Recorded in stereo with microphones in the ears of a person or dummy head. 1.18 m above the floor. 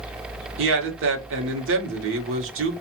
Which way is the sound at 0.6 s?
65° right (ahead or behind).